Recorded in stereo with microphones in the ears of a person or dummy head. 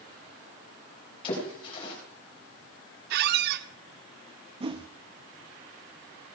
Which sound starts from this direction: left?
A splash, at 1.2 s.